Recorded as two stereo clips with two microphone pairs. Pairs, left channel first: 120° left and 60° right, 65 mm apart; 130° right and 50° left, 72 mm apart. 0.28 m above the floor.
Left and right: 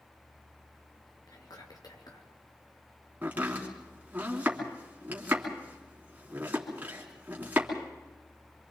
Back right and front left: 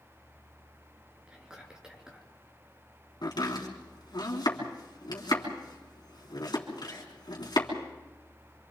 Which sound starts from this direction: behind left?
Whispering, at 1.3 s.